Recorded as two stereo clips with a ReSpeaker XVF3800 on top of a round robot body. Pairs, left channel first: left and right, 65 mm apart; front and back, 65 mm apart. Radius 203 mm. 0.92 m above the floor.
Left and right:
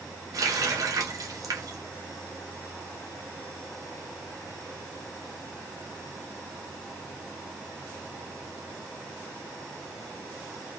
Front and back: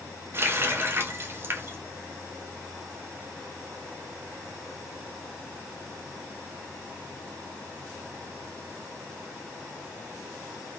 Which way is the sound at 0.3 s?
125° right.